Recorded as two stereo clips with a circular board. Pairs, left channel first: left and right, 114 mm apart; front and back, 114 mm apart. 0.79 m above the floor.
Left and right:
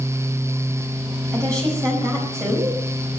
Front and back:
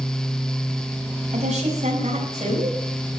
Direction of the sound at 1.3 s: 150° right.